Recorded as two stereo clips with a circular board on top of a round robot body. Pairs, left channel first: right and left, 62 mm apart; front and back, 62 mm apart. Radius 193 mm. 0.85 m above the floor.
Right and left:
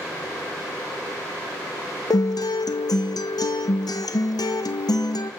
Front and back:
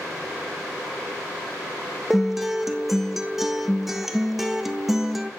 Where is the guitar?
90° right, 0.7 m.